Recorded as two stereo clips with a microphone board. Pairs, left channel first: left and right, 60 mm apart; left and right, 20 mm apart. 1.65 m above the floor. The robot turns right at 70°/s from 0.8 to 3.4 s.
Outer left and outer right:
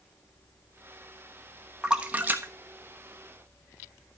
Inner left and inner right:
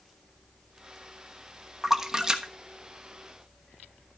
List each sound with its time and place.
1.8 s a splash: 10° right (ahead or behind), 1.1 m; by 3.8 s 35° right (ahead or behind), 1.1 m